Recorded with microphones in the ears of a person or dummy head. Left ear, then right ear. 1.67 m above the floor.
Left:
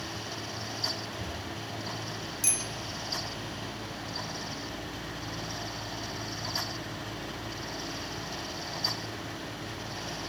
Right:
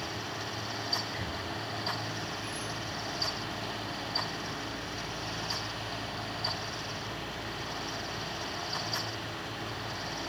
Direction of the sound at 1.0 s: 65° right (ahead or behind).